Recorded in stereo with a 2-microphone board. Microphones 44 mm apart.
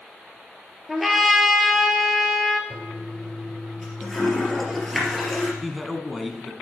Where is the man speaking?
Centre (ahead or behind), 1.3 m.